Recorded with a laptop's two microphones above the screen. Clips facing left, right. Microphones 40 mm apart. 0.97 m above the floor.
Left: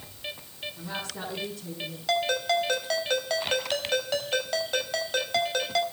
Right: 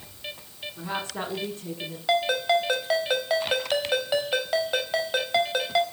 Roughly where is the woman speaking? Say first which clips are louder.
Right 6 dB; right.